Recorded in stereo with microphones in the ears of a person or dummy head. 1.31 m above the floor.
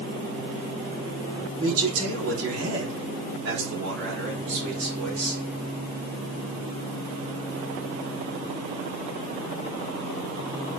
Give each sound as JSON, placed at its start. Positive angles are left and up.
{"t": 1.6, "sound": "a man speaking", "side_deg": -75, "distance_m": 3.0}